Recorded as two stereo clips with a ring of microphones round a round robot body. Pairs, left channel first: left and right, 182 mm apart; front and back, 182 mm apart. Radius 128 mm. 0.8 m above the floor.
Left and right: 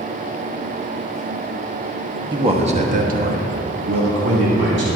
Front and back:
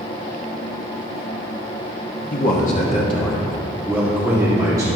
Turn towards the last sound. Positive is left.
turn(degrees=-105)